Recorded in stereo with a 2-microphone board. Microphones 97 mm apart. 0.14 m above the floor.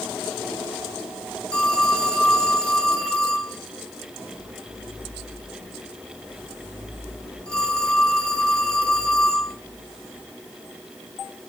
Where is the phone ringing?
10° left (ahead or behind), 4 m.